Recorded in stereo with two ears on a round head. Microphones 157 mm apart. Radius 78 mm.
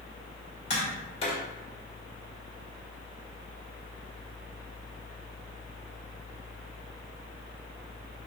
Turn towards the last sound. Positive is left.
turn(degrees=35)  # may be behind; listen again after turning